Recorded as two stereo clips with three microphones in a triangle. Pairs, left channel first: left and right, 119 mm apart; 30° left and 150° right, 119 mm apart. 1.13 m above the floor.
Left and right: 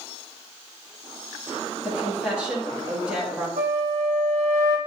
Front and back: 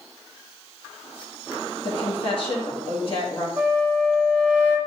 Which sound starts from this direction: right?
A flute, at 3.6 s.